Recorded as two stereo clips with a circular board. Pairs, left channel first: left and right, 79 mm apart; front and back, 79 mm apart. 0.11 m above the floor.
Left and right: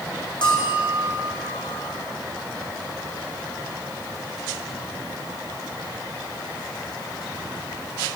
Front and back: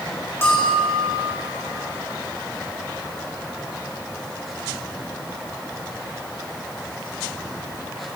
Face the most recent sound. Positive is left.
turn(degrees=65)